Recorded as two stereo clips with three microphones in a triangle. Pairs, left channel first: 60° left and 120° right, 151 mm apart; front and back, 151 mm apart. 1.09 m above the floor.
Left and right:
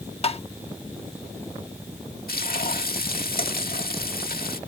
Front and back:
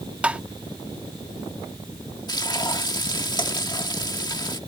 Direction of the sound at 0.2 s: 100° left.